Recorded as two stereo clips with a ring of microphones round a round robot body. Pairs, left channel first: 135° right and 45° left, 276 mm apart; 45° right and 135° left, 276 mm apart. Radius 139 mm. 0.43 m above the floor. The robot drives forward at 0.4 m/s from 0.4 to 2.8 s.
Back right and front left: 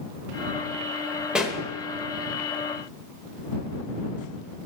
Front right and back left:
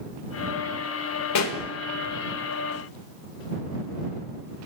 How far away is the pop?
About 1.0 m.